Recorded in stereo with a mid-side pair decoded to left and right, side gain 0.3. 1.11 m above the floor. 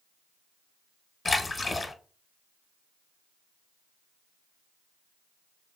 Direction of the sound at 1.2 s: 45° left.